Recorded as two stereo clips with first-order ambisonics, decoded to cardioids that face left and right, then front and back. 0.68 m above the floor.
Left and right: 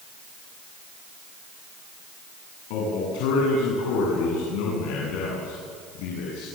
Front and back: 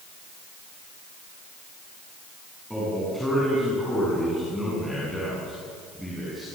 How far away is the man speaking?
About 8 m.